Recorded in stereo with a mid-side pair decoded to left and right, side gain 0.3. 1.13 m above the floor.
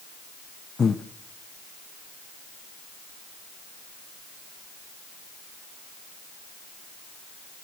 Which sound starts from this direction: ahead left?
Breathing, at 0.8 s.